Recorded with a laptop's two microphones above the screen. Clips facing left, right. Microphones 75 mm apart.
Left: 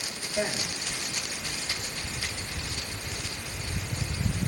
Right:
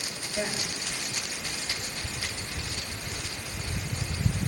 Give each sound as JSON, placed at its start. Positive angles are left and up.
{"t": 0.3, "sound": "a man speaking", "side_deg": 10, "distance_m": 4.0}